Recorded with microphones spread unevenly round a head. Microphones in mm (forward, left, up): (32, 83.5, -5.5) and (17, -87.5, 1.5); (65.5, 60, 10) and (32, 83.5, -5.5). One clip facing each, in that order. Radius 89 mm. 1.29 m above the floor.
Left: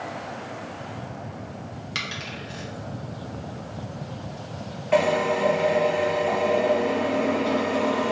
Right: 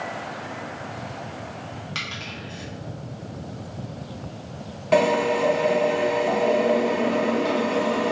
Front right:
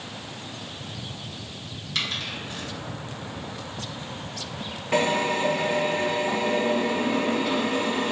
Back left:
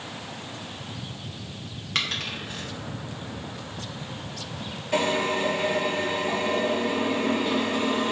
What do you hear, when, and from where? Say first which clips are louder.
1.9 s a dropped coin: left 1 dB, back left 1 dB; 140° left, 0.7 m
4.9 s a drill: right 2 dB, front right 1 dB; 65° right, 1.4 m